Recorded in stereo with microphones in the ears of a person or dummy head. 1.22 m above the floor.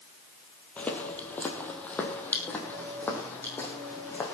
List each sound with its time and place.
0.8 s footsteps: 15° left (ahead or behind), 1.7 m